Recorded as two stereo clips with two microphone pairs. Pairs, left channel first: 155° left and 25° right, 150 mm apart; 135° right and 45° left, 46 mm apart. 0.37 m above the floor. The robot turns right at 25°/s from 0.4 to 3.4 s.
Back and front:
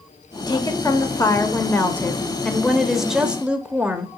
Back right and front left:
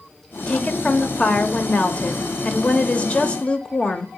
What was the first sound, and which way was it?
A woman speaking, 175° right.